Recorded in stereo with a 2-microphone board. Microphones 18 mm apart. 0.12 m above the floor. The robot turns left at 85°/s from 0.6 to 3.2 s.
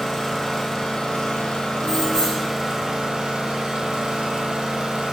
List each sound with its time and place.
0.0 s an engine running: 160° left, 0.8 m; by 5.1 s 60° right, 0.8 m
1.8 s keys jangling: 145° left, 1.3 m; by 2.5 s 90° left, 1.3 m